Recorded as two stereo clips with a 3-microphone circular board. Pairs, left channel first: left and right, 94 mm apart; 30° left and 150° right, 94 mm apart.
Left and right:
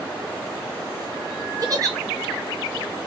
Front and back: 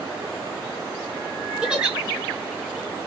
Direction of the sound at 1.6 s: 75° right.